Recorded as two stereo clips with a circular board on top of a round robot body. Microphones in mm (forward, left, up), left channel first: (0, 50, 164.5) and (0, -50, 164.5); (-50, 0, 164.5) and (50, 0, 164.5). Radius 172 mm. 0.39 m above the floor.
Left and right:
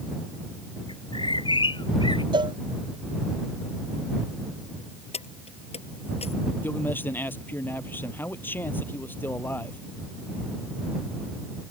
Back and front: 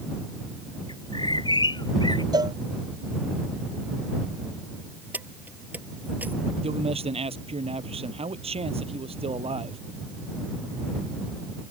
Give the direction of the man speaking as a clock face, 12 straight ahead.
11 o'clock.